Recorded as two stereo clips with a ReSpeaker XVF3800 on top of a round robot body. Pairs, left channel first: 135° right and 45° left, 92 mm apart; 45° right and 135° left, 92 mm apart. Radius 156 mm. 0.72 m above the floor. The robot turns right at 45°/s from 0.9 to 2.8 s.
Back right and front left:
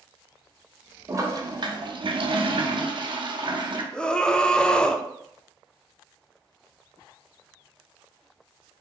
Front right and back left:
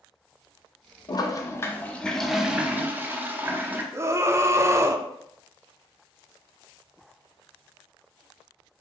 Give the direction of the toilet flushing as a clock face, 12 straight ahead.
12 o'clock.